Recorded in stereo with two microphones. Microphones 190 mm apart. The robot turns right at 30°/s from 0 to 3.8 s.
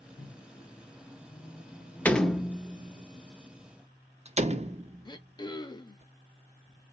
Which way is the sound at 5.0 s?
20° left (ahead or behind).